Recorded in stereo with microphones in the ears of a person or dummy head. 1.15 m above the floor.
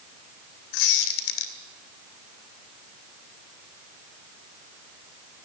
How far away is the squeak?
About 2.5 m.